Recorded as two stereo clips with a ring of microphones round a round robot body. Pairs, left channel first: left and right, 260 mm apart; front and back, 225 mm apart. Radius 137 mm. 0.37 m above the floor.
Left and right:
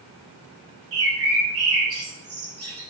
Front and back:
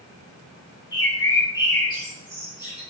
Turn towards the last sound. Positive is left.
turn(degrees=-70)